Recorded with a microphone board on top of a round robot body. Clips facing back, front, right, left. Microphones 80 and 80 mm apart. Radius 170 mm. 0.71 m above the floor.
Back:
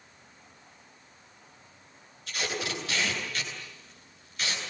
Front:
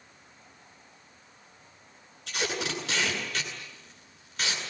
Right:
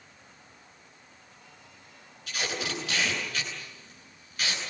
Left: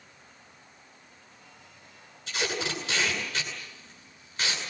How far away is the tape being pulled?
About 9.5 m.